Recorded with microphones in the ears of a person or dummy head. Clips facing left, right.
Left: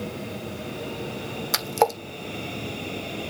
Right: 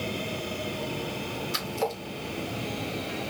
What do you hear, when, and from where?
1.5 s a splash: 85° left, 1.3 m